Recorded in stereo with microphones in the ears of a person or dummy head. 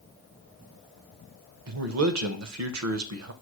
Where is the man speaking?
80° right, 0.6 m.